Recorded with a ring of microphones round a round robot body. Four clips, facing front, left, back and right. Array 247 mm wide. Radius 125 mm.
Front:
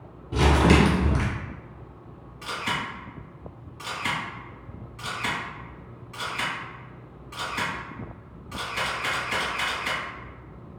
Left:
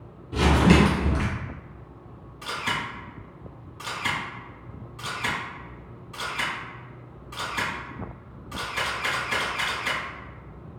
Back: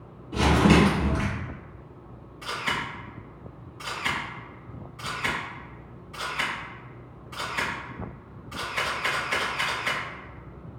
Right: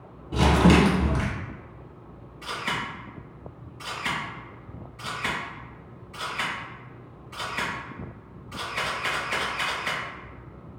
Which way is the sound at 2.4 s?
60° left.